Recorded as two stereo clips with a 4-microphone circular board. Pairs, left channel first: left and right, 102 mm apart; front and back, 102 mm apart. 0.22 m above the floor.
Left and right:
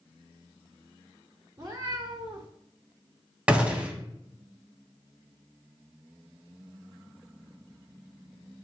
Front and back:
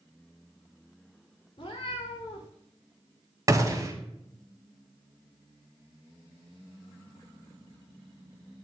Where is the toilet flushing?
I don't hear a toilet flushing.